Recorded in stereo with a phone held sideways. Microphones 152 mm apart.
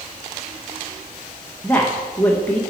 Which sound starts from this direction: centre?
A woman speaking, at 1.6 s.